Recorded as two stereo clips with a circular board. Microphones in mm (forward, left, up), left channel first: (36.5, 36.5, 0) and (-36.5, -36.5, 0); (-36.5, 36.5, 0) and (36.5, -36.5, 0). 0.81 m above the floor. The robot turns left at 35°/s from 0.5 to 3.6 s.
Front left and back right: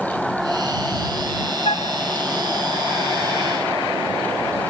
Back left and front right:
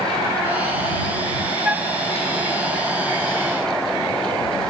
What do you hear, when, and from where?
1.6 s a flute: 35° left; by 1.9 s 25° left